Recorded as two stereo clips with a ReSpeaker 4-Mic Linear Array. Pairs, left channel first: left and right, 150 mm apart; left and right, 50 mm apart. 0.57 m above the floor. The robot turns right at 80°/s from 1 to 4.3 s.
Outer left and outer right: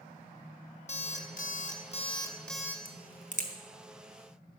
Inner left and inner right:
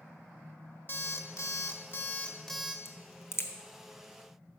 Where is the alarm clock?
55° left, 0.5 m; by 2.8 s 165° right, 0.5 m.